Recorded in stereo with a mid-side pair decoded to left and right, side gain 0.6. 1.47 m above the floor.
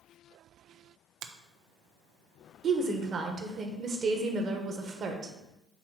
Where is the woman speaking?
40° right, 1.5 m.